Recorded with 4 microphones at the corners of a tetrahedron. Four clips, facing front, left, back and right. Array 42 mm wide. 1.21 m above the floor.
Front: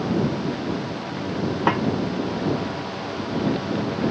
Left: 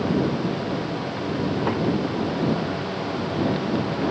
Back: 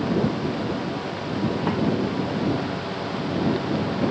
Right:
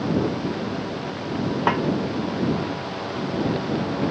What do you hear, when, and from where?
1.7 s a snare drum: 45° right